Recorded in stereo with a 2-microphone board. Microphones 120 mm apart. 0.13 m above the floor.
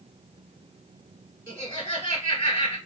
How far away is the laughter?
About 1.6 m.